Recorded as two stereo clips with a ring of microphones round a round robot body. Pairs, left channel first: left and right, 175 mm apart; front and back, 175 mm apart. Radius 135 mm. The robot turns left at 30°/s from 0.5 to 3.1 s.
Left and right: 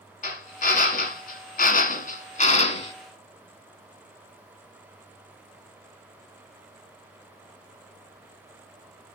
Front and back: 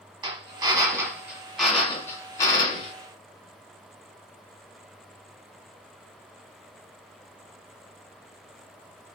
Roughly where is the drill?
Behind left.